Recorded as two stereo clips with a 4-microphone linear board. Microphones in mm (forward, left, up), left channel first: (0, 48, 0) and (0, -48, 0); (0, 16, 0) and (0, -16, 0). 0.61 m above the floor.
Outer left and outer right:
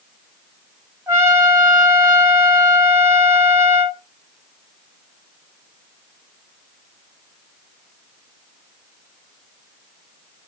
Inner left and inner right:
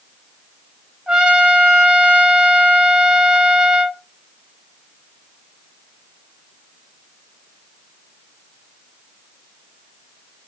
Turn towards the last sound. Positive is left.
turn(degrees=-25)  # may be behind; listen again after turning